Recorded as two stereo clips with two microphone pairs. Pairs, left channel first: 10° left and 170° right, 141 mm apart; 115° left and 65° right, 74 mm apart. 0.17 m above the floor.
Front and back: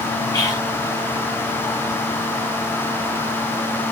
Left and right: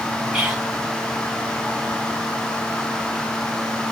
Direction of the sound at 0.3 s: Straight ahead.